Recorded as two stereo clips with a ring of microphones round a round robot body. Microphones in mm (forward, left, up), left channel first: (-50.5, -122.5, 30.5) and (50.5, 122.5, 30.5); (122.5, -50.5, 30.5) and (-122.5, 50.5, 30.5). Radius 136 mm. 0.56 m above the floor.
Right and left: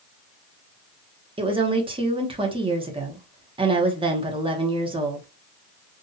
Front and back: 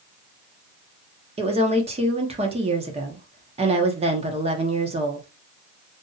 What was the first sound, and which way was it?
A woman speaking, 115° left.